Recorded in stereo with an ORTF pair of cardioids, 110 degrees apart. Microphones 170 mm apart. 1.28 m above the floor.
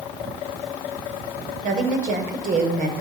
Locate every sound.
1.6 s a woman speaking: 50° right, 5.5 m